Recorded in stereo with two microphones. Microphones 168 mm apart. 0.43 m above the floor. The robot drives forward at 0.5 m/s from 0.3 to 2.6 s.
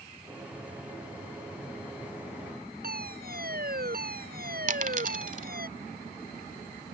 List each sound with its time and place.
2.8 s a fire alarm: 65° right (ahead or behind)
4.7 s a dropped coin: 50° right (ahead or behind)